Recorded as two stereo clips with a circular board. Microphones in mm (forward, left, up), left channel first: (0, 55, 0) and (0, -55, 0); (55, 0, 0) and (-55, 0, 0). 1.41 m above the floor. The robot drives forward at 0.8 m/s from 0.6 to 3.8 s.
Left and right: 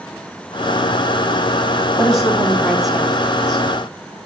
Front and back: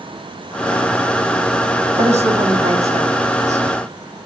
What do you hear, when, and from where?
2.0 s a woman speaking: straight behind, 4.5 m